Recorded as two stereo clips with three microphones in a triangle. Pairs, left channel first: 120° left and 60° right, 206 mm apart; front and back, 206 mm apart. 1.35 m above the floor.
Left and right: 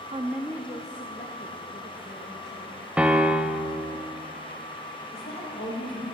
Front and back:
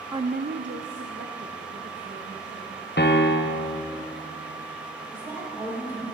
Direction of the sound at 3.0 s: 25° left.